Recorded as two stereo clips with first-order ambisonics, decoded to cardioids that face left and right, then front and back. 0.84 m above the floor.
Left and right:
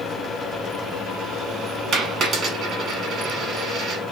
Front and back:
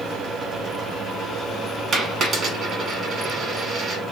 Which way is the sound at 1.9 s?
130° right.